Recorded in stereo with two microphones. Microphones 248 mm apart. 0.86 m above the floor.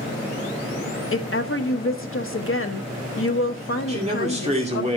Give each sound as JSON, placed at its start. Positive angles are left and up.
{"t": 1.1, "sound": "a woman speaking", "side_deg": 50, "distance_m": 0.9}
{"t": 3.9, "sound": "a man speaking", "side_deg": -25, "distance_m": 2.5}